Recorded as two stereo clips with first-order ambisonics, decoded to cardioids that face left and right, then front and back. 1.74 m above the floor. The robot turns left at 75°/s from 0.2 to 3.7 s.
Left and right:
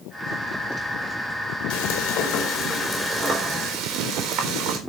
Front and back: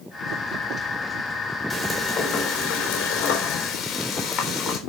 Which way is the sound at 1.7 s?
105° left.